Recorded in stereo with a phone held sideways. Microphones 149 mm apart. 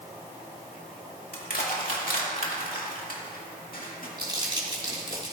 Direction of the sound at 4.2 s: 30° right (ahead or behind).